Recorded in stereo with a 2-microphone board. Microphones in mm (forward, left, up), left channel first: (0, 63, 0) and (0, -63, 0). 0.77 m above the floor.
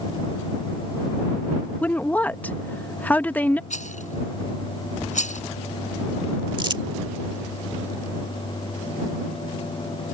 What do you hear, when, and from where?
1.8 s a woman speaking: 15° left (ahead or behind)
3.7 s a rattle: 75° left (ahead or behind)
6.6 s crumpling: 40° right (ahead or behind)